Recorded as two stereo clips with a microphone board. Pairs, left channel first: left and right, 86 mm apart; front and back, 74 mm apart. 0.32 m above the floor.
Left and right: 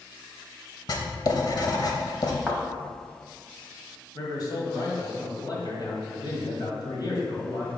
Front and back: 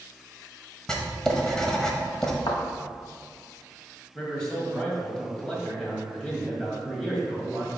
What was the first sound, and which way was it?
Writing, 80° left.